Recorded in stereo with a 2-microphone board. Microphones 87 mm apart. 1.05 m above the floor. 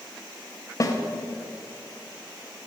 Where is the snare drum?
35° left (ahead or behind), 0.6 m.